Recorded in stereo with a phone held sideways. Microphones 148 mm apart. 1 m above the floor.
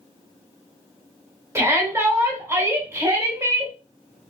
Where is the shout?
20° right (ahead or behind), 2 m.